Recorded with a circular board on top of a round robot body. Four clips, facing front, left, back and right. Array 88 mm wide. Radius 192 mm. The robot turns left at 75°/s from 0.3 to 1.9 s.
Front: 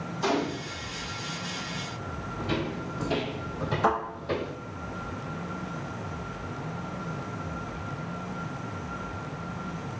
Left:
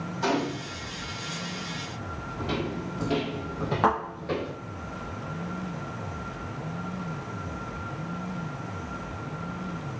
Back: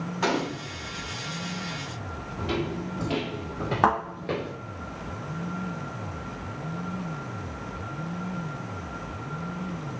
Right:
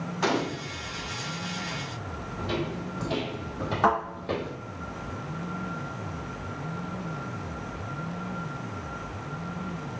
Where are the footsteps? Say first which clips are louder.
Even, back 2 dB; 150° left, 1.6 m; by 4.5 s 160° right, 0.9 m.